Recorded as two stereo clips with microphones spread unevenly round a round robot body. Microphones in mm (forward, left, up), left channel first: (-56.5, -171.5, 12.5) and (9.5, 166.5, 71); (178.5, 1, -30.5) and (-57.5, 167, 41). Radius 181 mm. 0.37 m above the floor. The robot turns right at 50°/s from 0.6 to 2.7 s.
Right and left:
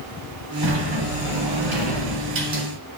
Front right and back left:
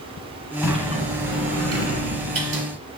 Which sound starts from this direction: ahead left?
A sliding door, at 0.6 s.